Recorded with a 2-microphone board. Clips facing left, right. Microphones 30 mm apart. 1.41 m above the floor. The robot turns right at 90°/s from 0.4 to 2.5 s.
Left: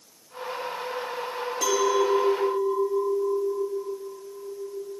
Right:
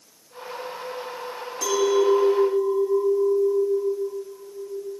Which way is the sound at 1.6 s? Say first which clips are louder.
Right 3 dB; 155° left.